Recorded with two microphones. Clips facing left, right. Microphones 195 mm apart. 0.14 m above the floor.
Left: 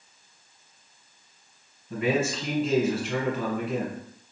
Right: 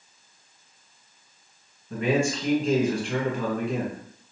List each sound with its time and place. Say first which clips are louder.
1.9 s a man speaking: right 2 dB; 5° left (ahead or behind), 1.3 m